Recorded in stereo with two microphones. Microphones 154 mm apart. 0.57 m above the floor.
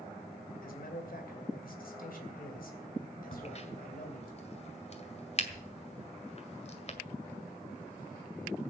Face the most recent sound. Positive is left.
turn(degrees=45)  # may be behind; listen again after turning